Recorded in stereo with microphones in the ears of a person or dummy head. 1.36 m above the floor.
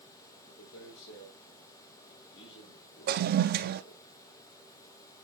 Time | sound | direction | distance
0.5 | a man speaking | 70° left (ahead or behind) | 2 m
3.1 | a toilet flushing | 45° right (ahead or behind) | 0.5 m